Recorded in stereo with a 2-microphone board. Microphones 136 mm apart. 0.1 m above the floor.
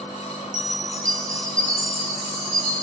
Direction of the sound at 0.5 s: 75° right (ahead or behind).